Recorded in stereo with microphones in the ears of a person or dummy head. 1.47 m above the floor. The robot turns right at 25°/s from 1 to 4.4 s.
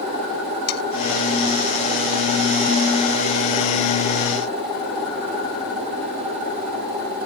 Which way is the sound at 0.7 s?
60° left (ahead or behind).